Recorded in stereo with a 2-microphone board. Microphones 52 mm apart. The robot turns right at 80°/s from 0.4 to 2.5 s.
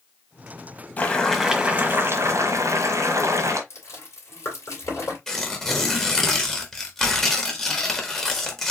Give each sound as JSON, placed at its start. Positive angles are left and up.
{"t": 1.0, "sound": "boiling", "azimuth_deg": 145, "distance_m": 1.7}
{"t": 3.7, "sound": "chewing", "side_deg": 65, "distance_m": 3.0}
{"t": 5.3, "sound": "tearing paper", "side_deg": 10, "distance_m": 1.4}